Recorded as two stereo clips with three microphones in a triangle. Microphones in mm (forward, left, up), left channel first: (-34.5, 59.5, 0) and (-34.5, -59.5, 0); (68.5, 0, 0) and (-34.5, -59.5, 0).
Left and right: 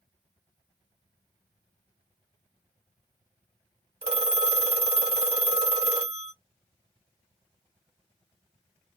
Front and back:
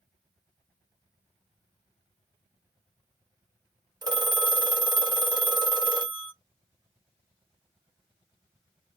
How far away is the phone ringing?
About 0.6 m.